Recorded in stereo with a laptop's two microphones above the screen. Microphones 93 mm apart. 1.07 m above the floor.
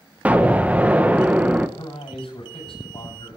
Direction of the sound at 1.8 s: 75° left (ahead or behind).